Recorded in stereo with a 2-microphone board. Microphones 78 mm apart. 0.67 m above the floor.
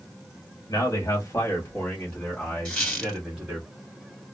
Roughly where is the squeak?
Centre.